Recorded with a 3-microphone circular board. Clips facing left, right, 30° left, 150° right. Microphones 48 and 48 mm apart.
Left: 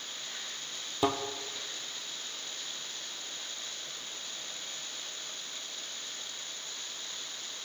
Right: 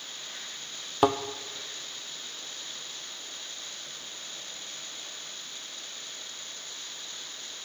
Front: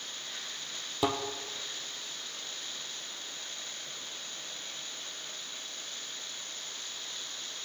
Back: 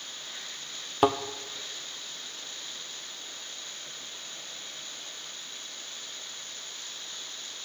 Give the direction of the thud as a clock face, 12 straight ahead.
4 o'clock.